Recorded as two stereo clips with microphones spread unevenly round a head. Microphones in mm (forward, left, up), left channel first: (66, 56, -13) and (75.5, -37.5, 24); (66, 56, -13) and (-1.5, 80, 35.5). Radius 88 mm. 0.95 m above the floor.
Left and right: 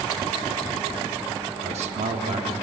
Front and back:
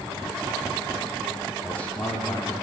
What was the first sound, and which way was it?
A man speaking, 90° right.